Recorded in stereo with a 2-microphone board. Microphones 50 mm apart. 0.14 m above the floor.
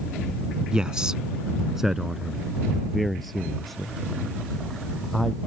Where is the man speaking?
15° right (ahead or behind); by 5.4 s 5° left (ahead or behind).